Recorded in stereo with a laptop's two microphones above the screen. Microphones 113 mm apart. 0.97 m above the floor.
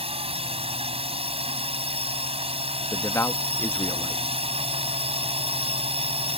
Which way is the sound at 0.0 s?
60° right (ahead or behind).